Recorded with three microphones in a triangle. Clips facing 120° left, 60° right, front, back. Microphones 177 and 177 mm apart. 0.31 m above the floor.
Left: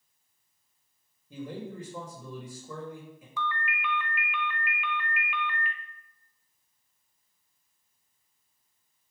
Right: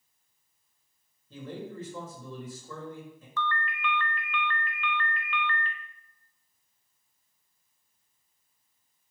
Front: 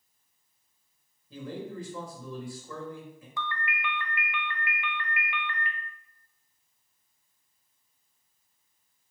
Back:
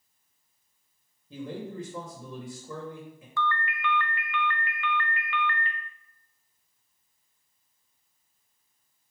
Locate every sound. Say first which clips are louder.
1.3 s a man speaking: left 1 dB, back 1 dB; 170° left, 1.4 m
3.4 s a ringtone: right 1 dB, back 5 dB; 55° left, 0.8 m